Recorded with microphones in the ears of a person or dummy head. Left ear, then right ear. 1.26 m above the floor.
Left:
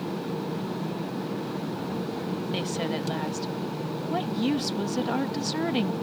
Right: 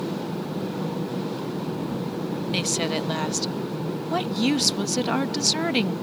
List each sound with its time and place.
2.5 s a woman speaking: 25° right (ahead or behind)